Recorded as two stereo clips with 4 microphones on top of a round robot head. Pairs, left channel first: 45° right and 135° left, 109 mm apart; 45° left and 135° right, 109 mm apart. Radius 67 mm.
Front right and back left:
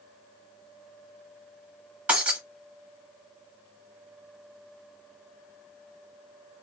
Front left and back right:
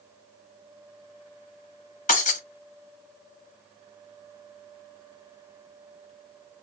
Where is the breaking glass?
60° left, 0.9 m.